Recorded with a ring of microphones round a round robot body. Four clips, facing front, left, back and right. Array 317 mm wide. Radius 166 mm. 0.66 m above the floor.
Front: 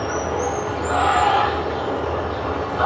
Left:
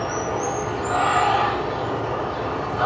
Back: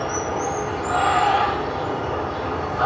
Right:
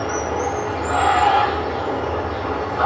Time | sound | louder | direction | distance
0.0 | running water | right 2 dB, front 2 dB | 50° right | 1.2 m